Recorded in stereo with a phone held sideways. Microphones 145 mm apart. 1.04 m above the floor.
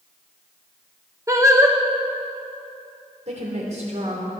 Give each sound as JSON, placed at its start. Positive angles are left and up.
{"t": 1.3, "sound": "singing", "side_deg": -20, "distance_m": 1.2}
{"t": 3.3, "sound": "a woman speaking", "side_deg": -50, "distance_m": 3.0}